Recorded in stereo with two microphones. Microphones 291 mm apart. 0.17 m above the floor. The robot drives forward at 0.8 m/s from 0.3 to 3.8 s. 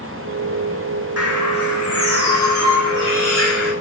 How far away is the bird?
About 6 m.